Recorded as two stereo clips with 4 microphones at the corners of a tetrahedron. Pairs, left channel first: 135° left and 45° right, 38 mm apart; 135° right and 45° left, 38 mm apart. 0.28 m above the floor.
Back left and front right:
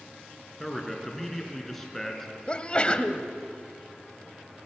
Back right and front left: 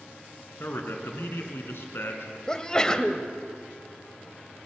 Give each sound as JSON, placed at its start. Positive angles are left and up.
{"t": 0.6, "sound": "a man speaking", "azimuth_deg": -140, "distance_m": 4.0}
{"t": 2.5, "sound": "a sneeze", "azimuth_deg": 175, "distance_m": 1.3}